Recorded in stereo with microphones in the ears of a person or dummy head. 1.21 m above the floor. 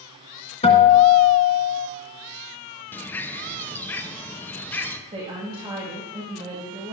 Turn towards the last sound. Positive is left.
turn(degrees=-30)  # may be behind; listen again after turning